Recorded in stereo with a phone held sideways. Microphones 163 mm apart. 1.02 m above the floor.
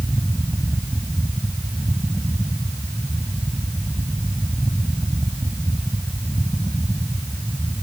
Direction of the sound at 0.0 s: 5° left (ahead or behind).